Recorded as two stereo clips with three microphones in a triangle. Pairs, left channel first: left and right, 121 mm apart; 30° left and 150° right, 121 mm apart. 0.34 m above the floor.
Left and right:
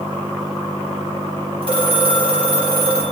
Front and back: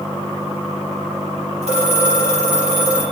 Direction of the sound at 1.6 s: 130° right.